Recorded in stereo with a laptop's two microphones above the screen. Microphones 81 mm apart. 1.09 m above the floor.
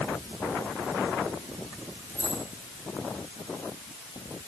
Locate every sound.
2.1 s keys jangling: 25° left (ahead or behind), 9.5 m